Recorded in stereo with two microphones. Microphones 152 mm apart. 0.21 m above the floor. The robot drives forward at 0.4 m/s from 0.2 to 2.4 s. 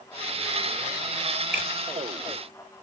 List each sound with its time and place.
1.5 s a finger snap: 70° left (ahead or behind), 3.5 m